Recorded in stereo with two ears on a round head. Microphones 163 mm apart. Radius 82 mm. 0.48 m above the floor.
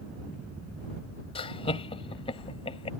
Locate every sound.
1.4 s laughter: 30° left (ahead or behind)